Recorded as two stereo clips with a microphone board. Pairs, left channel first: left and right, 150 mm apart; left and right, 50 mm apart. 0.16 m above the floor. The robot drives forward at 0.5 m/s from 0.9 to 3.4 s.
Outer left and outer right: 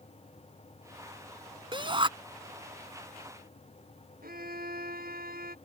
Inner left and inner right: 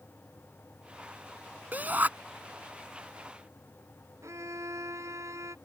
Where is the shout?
35° right (ahead or behind).